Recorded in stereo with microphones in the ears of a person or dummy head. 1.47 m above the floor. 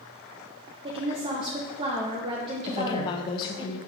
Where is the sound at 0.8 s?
30° right (ahead or behind), 0.8 m.